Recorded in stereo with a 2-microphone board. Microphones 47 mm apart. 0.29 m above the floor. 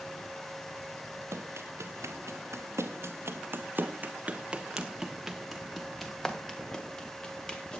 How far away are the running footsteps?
About 2.5 m.